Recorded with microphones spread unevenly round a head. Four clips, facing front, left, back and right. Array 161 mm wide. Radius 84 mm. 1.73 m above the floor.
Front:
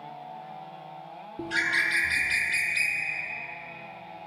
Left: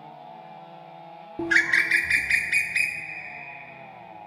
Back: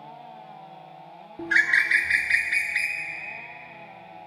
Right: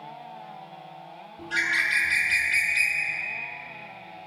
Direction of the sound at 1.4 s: 85° left.